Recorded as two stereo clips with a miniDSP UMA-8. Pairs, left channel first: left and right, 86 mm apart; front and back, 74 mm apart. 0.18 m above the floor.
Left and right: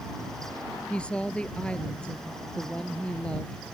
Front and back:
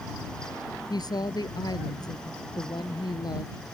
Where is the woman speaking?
10° left.